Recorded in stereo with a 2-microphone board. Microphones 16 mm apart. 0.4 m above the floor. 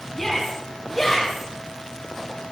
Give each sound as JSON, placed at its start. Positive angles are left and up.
{"t": 0.1, "sound": "a shout", "side_deg": 10, "distance_m": 3.0}